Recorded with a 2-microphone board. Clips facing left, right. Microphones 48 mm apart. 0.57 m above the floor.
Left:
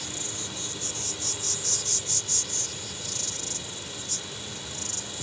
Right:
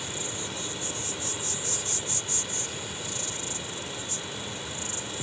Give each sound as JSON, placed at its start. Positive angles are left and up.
{"t": 0.0, "sound": "an insect", "side_deg": -20}